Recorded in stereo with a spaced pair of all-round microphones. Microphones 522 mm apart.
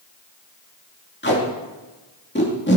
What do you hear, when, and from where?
1.2 s tape being pulled: 20° left (ahead or behind), 2.5 m